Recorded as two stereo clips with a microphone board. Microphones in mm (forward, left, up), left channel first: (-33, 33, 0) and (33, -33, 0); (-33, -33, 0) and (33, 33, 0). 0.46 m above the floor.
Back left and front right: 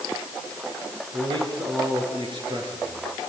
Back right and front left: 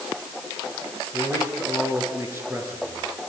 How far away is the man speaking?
About 6.5 m.